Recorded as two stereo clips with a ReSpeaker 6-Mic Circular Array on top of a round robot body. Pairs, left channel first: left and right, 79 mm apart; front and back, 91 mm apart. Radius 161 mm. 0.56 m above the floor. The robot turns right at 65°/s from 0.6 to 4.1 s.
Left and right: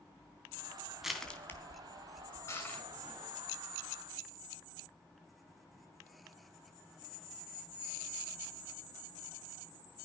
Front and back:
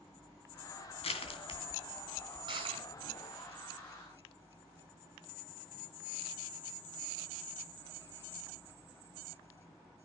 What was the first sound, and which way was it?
Crushing, 5° right.